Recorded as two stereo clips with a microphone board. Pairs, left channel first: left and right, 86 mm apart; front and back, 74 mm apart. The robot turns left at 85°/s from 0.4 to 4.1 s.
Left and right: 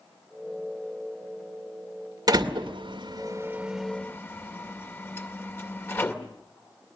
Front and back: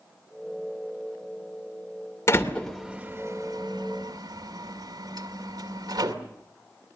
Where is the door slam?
50° right, 2 m; by 6.1 s 150° left, 2 m.